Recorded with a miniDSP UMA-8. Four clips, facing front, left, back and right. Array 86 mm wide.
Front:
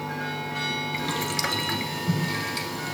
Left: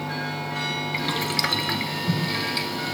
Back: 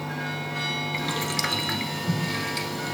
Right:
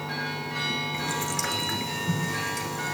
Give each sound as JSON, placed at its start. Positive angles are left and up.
{"t": 0.9, "sound": "boiling", "azimuth_deg": 100, "distance_m": 1.0}